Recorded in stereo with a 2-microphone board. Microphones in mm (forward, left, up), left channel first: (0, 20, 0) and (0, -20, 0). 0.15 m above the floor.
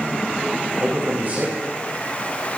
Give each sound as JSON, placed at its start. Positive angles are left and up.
{"t": 0.8, "sound": "a man speaking", "side_deg": -40, "distance_m": 7.5}